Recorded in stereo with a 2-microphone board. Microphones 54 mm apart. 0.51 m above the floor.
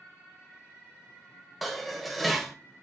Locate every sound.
1.6 s dishes clattering: centre (ahead or behind), 1.2 m